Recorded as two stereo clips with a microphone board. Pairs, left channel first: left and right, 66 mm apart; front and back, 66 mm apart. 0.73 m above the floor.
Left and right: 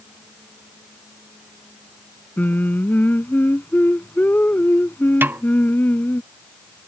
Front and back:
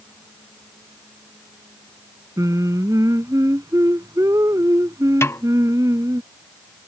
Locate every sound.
2.4 s singing: 150° left
5.2 s a snare drum: 40° right